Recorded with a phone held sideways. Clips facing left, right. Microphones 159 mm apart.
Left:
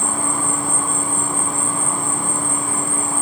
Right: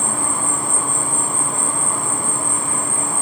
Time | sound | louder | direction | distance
0.0 | an insect | left 1 dB | 80° right | 1.6 m